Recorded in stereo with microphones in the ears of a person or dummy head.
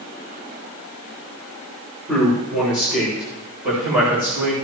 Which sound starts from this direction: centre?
A man speaking, at 2.1 s.